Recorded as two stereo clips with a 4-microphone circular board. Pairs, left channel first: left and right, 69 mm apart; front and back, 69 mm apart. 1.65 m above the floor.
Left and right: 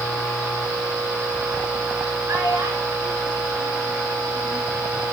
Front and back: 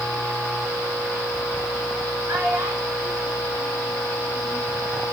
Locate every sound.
2.3 s a child speaking: 135° right, 5.5 m; by 4.6 s 150° right, 3 m